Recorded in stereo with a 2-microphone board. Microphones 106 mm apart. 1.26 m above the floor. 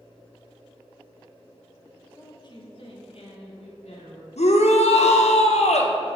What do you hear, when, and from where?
2.1 s a woman speaking: 30° left (ahead or behind), 1.1 m; by 4.3 s 75° left (ahead or behind), 2.5 m
4.4 s a shout: 90° left, 0.9 m